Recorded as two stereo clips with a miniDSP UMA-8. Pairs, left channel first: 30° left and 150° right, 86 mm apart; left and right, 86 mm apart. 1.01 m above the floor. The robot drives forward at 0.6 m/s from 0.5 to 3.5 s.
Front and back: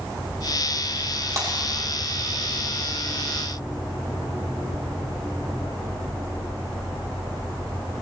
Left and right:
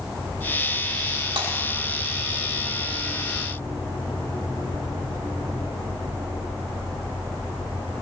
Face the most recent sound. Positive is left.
turn(degrees=-110)